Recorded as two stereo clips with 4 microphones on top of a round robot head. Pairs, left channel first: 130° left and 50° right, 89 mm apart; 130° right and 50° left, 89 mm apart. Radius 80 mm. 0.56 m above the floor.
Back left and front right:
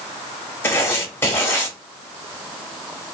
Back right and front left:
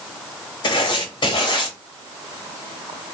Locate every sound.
0.6 s writing: 165° right, 0.9 m